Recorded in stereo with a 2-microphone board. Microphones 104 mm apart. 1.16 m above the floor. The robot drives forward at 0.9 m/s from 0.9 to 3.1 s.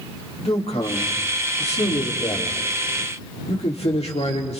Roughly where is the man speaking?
Left.